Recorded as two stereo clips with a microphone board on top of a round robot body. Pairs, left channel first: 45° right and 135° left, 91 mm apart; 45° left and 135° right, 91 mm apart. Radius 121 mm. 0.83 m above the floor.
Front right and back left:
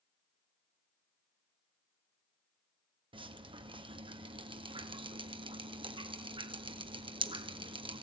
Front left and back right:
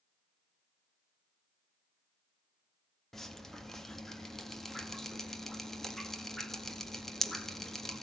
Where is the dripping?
130° left, 1.9 m.